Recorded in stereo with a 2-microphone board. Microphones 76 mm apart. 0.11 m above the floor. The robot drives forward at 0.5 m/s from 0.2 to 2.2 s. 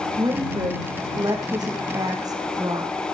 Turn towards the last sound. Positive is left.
turn(degrees=-50)  # may be behind; listen again after turning